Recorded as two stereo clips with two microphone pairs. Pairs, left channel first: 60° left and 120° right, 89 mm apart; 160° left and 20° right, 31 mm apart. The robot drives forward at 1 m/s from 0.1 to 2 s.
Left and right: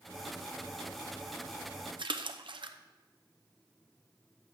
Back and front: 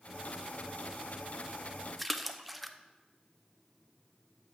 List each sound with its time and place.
2.0 s a splash: 110° right, 0.6 m